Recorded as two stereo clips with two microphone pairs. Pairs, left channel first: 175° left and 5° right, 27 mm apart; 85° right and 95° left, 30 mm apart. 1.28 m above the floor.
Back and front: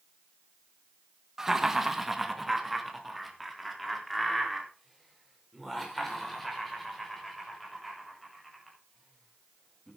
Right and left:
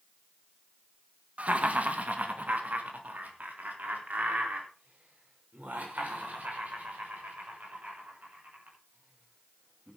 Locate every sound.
1.4 s laughter: 60° left, 1.7 m; by 9.9 s 85° left, 9.5 m